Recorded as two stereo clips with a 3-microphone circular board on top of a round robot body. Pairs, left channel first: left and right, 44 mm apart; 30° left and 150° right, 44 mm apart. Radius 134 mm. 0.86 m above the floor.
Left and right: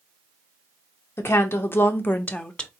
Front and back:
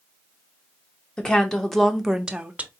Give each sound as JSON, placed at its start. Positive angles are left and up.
{"t": 1.2, "sound": "a woman speaking", "azimuth_deg": 100, "distance_m": 1.1}